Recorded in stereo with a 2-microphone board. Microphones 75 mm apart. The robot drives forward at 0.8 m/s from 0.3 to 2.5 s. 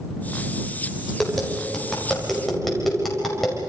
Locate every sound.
1.2 s tapping: centre (ahead or behind), 5 m